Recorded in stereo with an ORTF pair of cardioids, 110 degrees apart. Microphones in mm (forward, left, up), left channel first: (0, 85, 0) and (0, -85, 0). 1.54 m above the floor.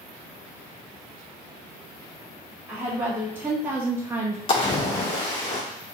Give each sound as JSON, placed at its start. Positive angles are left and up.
{"t": 2.7, "sound": "a woman speaking", "azimuth_deg": -10, "distance_m": 1.9}
{"t": 4.5, "sound": "a splash", "azimuth_deg": 30, "distance_m": 2.0}